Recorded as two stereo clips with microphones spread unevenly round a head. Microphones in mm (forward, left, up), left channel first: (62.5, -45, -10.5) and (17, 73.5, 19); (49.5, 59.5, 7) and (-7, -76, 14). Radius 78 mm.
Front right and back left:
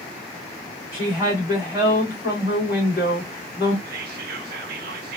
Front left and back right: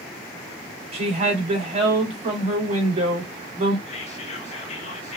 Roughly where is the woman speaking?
Behind.